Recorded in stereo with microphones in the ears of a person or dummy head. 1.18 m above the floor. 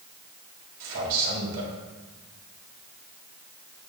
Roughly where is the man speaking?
Right.